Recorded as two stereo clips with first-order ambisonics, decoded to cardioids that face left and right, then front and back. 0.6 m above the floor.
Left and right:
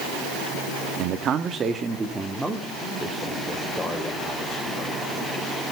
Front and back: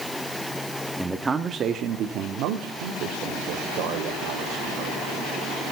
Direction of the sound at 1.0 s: 85° right.